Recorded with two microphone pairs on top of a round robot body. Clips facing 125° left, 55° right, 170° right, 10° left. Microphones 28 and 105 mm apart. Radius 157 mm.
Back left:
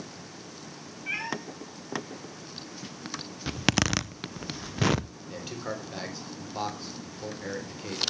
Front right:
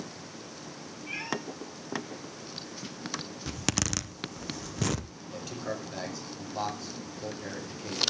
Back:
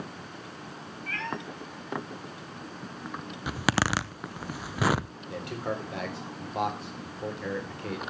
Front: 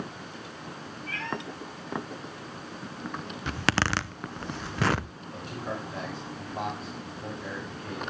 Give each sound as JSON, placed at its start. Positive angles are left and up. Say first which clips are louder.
{"t": 1.1, "sound": "a cat meowing", "louder": "back left 3 dB, even", "azimuth_deg": 175, "distance_m": 0.8}
{"t": 3.5, "sound": "a zipper", "louder": "back left 6 dB, even", "azimuth_deg": 115, "distance_m": 0.9}
{"t": 5.3, "sound": "a man speaking", "louder": "even, back 3 dB", "azimuth_deg": -170, "distance_m": 4.0}